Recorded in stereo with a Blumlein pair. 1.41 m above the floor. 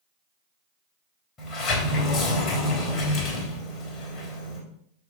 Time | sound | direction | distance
1.4 | a sliding door | 25° left | 3 m